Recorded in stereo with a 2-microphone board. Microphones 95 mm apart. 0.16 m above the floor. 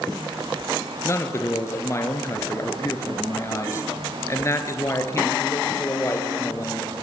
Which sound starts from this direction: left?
A man speaking, at 1.0 s.